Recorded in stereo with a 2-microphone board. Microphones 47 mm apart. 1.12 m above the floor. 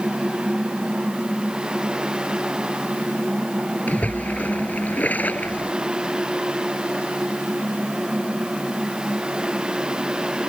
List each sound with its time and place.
3.9 s a splash: 35° left (ahead or behind)